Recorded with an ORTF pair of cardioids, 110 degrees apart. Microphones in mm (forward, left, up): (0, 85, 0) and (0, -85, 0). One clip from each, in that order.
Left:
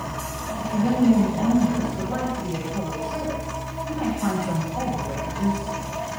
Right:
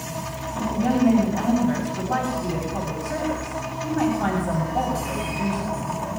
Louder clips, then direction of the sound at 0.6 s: Right 1 dB; 65° right.